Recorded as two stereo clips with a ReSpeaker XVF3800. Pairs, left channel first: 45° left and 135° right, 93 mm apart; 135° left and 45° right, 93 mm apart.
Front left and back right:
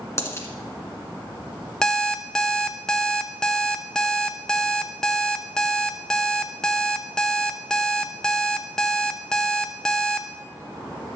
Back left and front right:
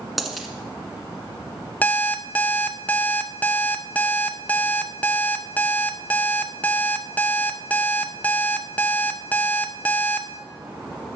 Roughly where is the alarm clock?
Left.